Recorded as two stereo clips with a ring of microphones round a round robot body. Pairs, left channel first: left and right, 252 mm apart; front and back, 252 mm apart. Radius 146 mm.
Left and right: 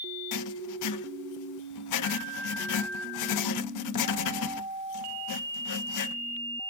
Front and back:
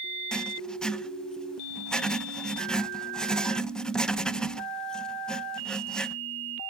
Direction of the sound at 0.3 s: 85° left.